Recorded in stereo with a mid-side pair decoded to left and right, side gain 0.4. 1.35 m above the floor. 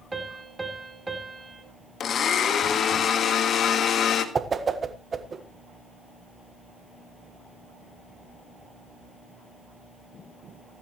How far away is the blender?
About 1.7 m.